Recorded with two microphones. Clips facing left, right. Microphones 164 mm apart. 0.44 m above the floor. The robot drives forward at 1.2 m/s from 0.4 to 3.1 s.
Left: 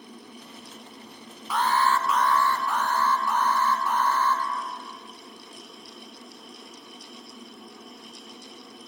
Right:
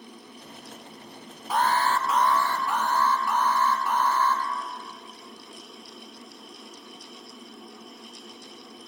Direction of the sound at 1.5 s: 45° right (ahead or behind).